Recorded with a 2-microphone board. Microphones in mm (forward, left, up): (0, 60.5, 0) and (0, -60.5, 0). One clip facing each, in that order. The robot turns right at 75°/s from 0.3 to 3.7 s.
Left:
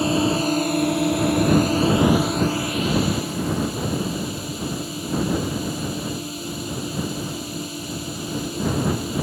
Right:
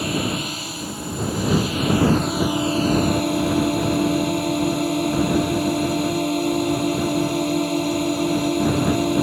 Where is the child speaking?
I don't hear a child speaking.